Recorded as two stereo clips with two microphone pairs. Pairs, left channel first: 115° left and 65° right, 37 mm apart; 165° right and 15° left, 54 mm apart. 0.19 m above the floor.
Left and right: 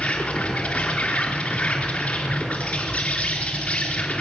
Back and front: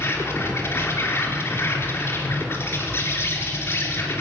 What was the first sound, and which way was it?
An insect, 160° left.